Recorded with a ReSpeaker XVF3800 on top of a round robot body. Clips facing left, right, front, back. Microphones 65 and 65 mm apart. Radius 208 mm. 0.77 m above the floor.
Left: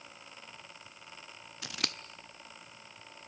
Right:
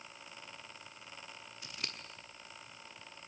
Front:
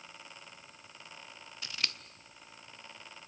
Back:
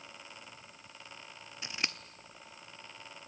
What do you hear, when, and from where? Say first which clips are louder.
1.6 s scissors: left 7 dB, back 2 dB; 110° left, 0.5 m